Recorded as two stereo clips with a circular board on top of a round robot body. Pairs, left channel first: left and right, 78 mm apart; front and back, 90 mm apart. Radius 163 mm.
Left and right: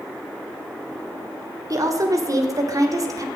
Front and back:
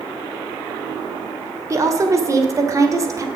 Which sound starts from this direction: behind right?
A woman speaking, at 1.7 s.